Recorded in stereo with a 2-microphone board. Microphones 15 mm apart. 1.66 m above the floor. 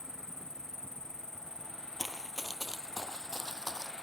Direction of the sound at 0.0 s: 40° left (ahead or behind).